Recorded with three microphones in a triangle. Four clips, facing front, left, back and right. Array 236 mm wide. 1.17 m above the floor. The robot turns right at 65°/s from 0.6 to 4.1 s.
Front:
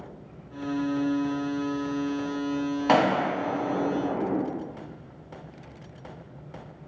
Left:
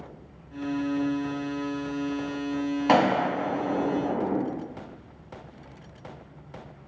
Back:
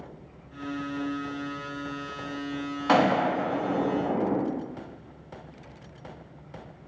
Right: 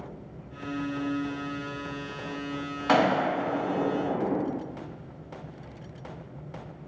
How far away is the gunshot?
About 0.5 m.